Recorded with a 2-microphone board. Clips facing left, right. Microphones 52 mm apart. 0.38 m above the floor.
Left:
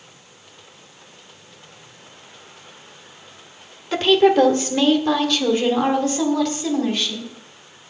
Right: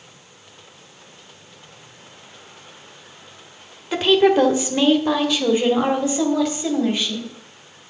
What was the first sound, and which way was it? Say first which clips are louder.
A woman speaking: left 1 dB; 5° right (ahead or behind).